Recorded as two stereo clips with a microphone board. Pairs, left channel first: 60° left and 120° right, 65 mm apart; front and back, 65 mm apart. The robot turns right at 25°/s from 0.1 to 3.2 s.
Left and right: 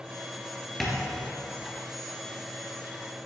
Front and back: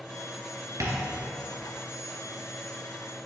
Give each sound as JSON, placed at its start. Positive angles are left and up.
{"t": 0.8, "sound": "tapping", "azimuth_deg": 150, "distance_m": 3.0}